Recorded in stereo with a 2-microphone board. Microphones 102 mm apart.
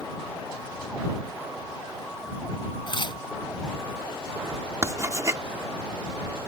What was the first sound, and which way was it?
Tearing paper, 50° left (ahead or behind).